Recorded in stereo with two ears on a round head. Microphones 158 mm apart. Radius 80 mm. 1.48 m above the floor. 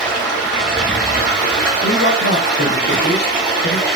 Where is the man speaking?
65° left (ahead or behind), 0.9 m.